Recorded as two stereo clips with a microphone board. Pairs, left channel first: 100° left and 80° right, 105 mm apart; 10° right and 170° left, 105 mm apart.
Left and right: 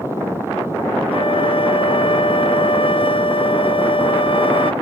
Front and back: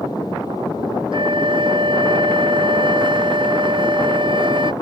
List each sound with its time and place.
1.1 s a flute: 130° left